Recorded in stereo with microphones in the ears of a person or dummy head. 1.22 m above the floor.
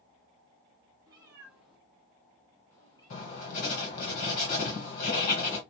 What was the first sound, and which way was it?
A cat meowing, 20° right (ahead or behind).